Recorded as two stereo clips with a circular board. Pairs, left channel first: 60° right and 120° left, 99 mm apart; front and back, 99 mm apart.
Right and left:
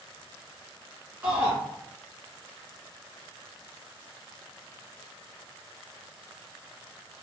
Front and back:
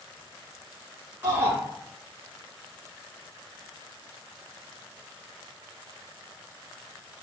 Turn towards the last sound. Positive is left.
turn(degrees=165)